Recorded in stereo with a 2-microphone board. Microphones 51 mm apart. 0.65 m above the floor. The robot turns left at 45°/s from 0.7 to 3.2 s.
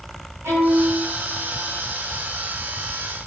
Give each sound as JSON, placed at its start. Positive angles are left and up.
{"t": 0.4, "sound": "a violin", "side_deg": -85, "distance_m": 1.5}